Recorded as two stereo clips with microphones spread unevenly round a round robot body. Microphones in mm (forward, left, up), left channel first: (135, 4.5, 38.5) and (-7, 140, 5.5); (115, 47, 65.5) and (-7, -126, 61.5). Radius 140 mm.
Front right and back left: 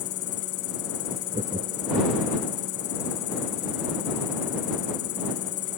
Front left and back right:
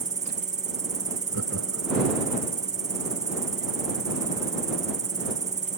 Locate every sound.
0.0 s an insect: 70° right
1.3 s laughter: 155° right